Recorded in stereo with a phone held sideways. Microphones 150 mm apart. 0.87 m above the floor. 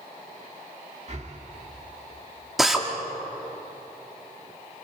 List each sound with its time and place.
1.1 s breathing: 50° right (ahead or behind), 1.8 m
2.6 s a drill: centre (ahead or behind), 2.0 m